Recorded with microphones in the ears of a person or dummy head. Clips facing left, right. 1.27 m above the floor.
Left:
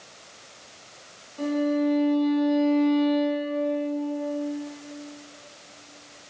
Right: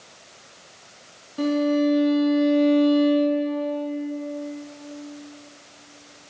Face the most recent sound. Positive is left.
turn(degrees=-65)  # may be behind; listen again after turning